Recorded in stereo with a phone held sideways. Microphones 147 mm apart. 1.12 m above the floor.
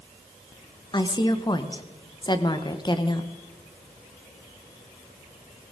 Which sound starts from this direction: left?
A woman speaking, at 0.9 s.